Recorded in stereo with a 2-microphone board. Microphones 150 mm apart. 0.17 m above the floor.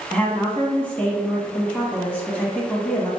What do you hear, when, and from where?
0.1 s a woman speaking: 10° left (ahead or behind), 1.1 m